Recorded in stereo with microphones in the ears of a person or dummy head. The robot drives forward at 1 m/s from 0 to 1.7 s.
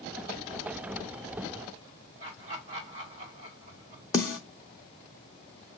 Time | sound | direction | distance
2.2 | laughter | 35° right (ahead or behind) | 2.5 m
4.1 | a snare drum | 15° left (ahead or behind) | 0.7 m